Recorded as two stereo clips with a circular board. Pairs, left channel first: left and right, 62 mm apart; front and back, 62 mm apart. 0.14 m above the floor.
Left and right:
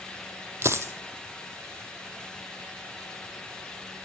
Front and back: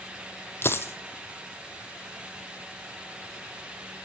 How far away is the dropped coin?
About 0.6 m.